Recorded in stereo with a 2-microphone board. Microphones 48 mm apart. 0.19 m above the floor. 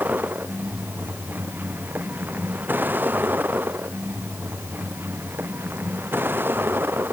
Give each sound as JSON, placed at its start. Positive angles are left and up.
{"t": 0.0, "sound": "a vehicle", "side_deg": -40}